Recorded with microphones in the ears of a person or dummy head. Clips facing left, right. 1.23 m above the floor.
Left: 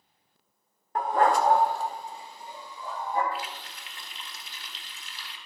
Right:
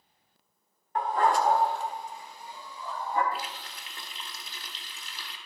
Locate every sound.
0.9 s a dog barking: 35° left (ahead or behind), 0.9 m; by 3.2 s 20° left (ahead or behind), 3 m
3.3 s a running tap: 35° right (ahead or behind), 1.6 m